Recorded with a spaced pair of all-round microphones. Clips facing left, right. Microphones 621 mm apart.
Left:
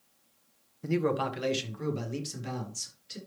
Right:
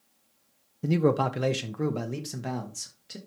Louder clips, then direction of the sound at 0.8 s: Right 4 dB; 60° right (ahead or behind).